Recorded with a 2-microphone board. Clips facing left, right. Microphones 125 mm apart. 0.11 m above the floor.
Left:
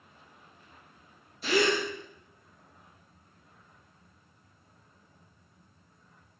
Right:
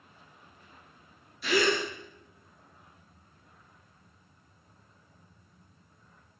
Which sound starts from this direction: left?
A gasp, at 1.4 s.